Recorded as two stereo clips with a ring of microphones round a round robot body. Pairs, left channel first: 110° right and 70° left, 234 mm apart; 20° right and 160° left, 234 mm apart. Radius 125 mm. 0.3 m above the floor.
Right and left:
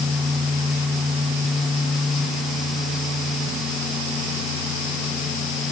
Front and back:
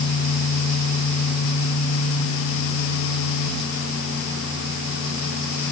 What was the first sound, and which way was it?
Only background noise.